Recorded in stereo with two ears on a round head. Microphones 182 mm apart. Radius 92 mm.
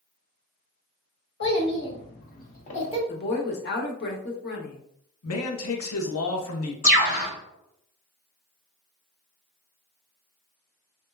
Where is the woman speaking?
55° left (ahead or behind), 0.9 m.